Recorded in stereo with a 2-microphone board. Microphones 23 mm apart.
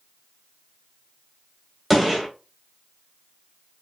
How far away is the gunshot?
About 1.7 m.